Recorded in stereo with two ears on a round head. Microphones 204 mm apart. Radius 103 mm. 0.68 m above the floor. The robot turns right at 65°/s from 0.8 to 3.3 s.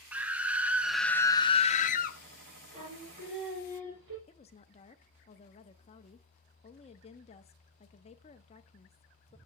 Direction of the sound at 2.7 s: 155° right.